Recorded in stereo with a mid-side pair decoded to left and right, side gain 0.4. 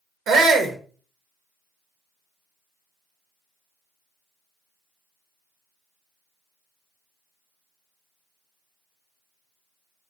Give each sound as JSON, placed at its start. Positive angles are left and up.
{"t": 0.3, "sound": "a shout", "azimuth_deg": -70, "distance_m": 0.9}